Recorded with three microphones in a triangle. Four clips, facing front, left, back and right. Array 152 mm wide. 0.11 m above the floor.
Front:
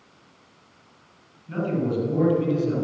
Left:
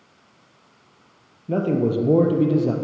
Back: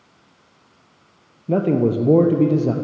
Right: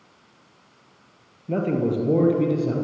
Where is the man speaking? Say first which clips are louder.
Left 2 dB, back 8 dB; 175° left, 3.5 m; by 2.8 s 150° left, 4 m.